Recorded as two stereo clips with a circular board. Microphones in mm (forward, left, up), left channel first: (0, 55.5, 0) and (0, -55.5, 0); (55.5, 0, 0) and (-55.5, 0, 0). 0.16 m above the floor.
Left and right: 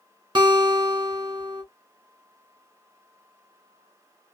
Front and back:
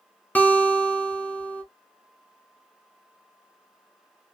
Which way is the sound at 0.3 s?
70° right.